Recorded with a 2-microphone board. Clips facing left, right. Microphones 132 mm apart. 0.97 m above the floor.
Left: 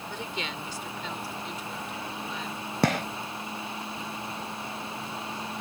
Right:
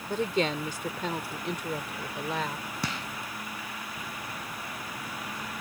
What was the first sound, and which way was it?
A woman speaking, 45° right (ahead or behind).